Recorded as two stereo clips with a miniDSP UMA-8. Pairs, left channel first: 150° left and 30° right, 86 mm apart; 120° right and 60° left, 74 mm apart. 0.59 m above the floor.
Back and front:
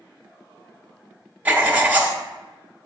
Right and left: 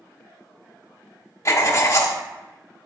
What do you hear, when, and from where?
1.4 s writing: 95° right, 0.9 m